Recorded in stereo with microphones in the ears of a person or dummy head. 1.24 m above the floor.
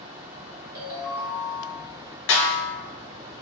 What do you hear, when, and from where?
0.8 s a ringtone: 80° right, 1.1 m
2.3 s a snare drum: 70° left (ahead or behind), 0.7 m